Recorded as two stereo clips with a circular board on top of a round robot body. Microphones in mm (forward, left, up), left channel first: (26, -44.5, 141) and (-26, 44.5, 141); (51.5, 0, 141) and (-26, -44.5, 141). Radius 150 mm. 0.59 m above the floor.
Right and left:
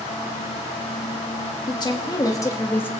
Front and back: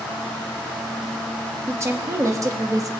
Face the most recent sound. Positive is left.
turn(degrees=-125)